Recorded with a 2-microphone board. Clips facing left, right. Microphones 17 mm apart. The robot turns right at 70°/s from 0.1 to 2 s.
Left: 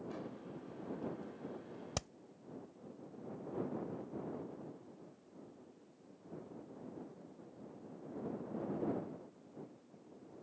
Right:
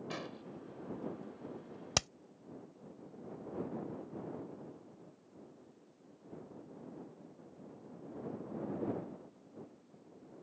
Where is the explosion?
60° right (ahead or behind); by 0.4 s 40° right (ahead or behind).